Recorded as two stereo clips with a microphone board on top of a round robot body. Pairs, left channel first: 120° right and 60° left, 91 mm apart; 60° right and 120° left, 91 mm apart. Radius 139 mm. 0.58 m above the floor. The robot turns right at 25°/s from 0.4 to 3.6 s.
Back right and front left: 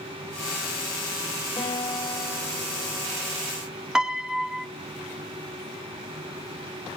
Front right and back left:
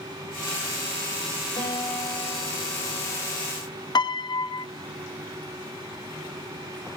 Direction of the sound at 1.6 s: 90° right.